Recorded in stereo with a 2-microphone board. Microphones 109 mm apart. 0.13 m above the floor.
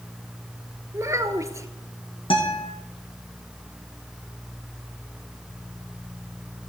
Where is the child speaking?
25° right (ahead or behind), 1.2 m.